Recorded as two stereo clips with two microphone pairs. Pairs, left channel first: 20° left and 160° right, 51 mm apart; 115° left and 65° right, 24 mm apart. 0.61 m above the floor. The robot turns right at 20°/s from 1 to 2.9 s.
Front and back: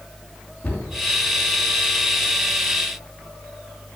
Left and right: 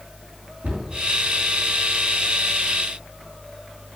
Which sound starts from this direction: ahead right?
A cupboard door, at 0.6 s.